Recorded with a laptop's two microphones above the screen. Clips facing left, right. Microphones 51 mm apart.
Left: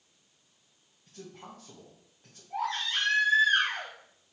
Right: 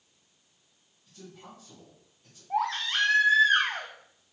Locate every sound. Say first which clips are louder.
1.1 s a man speaking: left 2 dB; 50° left (ahead or behind), 1.4 m
2.5 s a baby crying: right 3 dB; 65° right (ahead or behind), 1.4 m